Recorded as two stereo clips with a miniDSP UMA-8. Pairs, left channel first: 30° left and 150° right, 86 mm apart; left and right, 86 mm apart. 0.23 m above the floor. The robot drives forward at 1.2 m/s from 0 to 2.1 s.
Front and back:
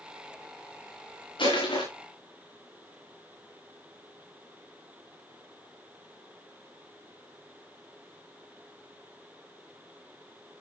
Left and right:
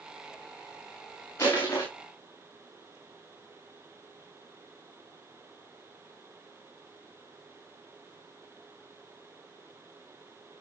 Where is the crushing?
30° left, 7.5 m; by 1.9 s 35° left, 7 m.